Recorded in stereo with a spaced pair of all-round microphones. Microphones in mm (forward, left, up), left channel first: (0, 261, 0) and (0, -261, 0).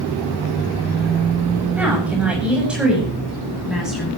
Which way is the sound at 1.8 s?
5° right (ahead or behind).